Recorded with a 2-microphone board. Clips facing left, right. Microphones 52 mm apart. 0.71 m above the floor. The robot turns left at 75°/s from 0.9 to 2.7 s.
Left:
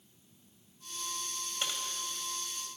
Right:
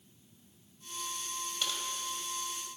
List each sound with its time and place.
1.6 s typing on a keyboard: 35° left (ahead or behind), 3 m; by 1.8 s 20° left (ahead or behind), 3 m